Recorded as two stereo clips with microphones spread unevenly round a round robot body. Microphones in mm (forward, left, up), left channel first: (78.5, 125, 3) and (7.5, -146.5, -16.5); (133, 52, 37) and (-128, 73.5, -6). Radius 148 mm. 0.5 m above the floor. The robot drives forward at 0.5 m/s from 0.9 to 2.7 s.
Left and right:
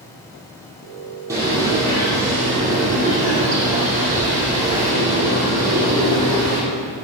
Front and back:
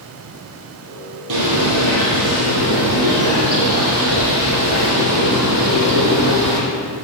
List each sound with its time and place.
1.3 s a bird: 175° left, 4 m